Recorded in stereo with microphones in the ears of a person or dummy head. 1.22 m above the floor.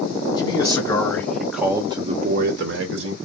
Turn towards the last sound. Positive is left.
turn(degrees=-80)